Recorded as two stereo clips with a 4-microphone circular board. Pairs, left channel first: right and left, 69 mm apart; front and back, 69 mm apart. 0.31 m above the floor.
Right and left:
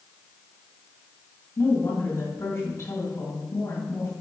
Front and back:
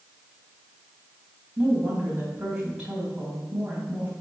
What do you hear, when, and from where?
1.6 s a woman speaking: 105° right, 2.5 m